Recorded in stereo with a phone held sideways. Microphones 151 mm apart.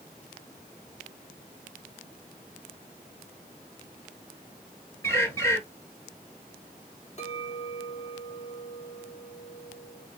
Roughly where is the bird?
Centre.